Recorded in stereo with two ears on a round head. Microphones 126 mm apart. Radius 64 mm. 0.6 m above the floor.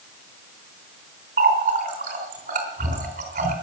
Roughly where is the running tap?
Right.